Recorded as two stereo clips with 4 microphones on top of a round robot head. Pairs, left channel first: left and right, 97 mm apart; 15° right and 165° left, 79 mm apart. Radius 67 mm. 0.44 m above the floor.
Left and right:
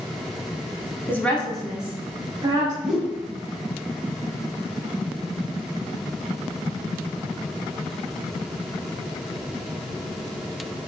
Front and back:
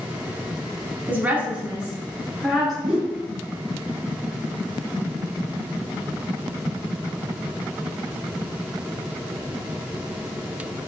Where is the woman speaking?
135° left, 0.9 m; by 2.7 s 100° right, 1.0 m.